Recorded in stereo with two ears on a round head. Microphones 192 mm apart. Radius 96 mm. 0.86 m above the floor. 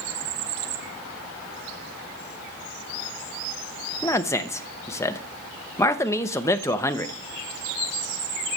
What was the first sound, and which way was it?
A man speaking, 15° left (ahead or behind).